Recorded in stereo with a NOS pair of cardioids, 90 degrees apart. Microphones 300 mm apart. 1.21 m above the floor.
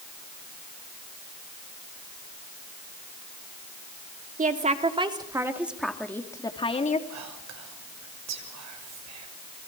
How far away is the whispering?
About 6.5 m.